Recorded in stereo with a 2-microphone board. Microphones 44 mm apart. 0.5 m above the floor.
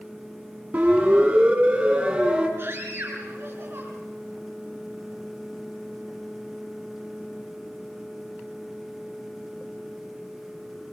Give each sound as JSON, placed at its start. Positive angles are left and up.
{"t": 0.7, "sound": "a siren", "side_deg": -35, "distance_m": 5.5}
{"t": 2.6, "sound": "a scream", "side_deg": -55, "distance_m": 5.0}